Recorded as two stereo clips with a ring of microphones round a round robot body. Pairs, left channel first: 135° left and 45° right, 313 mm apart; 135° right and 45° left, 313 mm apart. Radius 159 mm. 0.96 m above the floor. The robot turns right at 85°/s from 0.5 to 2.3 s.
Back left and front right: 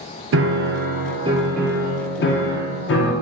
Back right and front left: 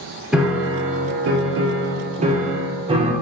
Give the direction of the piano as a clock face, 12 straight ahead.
1 o'clock.